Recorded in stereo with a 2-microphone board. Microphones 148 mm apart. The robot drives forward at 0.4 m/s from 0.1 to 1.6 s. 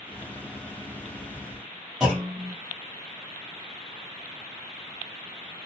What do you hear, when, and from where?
2.0 s a clunk: 5° right (ahead or behind), 2 m